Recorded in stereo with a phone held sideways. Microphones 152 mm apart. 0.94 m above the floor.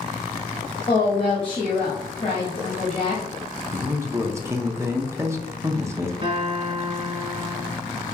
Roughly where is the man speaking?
Centre.